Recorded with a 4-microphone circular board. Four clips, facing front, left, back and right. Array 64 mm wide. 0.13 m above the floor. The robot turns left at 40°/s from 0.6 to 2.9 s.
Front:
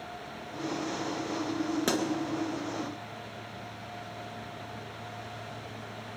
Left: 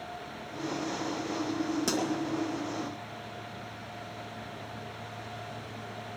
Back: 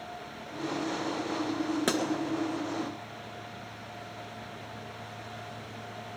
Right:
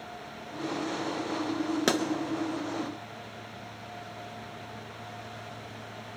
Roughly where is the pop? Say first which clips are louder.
Right 7 dB, even; right.